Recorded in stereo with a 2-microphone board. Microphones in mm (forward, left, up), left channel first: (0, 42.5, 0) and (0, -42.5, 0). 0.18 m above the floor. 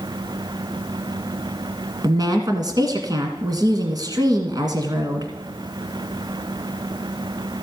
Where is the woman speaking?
55° right (ahead or behind), 1.8 m.